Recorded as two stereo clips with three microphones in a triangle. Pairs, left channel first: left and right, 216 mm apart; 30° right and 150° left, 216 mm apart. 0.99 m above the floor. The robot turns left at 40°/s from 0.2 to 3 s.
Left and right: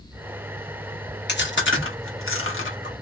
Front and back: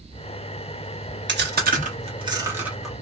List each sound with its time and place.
1.3 s chewing: 125° left, 0.8 m; by 2.9 s 60° left, 0.8 m